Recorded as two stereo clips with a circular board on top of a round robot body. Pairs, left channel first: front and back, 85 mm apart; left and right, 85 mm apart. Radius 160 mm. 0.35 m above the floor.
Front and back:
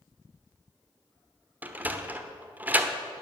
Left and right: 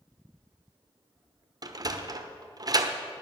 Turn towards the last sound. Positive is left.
turn(degrees=-115)